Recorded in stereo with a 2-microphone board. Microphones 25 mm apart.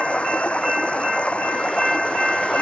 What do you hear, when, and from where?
0.0 s running water: 55° left (ahead or behind)